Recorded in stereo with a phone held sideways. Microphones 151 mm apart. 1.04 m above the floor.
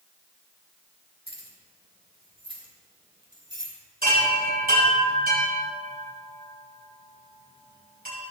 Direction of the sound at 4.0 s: 85° right.